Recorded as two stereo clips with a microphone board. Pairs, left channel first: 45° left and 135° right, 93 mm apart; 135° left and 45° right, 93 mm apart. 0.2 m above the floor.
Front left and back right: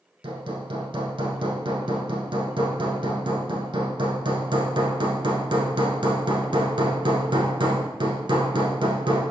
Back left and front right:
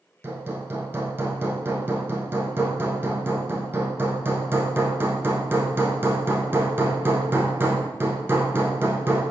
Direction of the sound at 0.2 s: 110° right.